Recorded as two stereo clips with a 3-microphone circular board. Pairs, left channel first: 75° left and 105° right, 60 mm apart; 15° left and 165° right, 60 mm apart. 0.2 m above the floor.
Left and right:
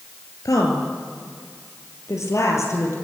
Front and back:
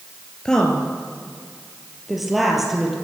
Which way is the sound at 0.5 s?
90° left.